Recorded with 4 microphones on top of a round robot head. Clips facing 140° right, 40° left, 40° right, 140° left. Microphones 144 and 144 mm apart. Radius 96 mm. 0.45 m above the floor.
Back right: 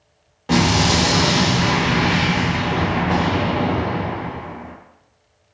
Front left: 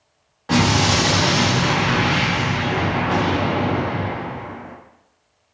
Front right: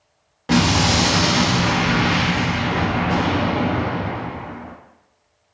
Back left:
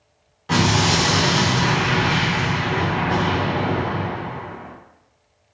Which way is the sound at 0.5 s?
70° right.